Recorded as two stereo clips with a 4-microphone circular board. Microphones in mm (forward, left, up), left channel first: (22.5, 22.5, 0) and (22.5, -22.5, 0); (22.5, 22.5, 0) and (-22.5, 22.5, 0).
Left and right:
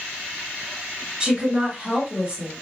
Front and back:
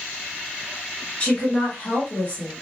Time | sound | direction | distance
1.2 | a woman speaking | 35° right | 2 m